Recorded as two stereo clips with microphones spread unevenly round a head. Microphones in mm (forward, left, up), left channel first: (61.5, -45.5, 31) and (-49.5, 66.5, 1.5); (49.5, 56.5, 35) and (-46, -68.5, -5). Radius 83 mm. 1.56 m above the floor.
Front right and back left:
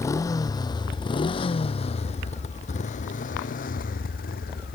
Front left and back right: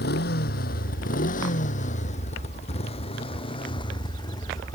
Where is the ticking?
I don't hear ticking.